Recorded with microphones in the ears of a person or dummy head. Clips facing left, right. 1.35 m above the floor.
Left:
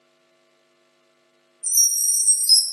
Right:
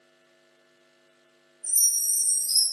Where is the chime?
70° left (ahead or behind), 0.7 m.